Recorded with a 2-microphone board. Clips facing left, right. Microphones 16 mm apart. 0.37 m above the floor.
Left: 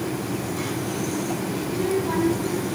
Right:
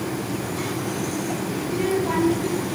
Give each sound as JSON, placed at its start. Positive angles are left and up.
{"t": 1.6, "sound": "a child speaking", "side_deg": -25, "distance_m": 6.5}